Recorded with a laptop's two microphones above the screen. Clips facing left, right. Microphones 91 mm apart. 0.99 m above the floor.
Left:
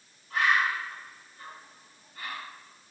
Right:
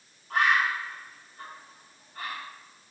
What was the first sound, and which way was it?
A bird, 50° right (ahead or behind).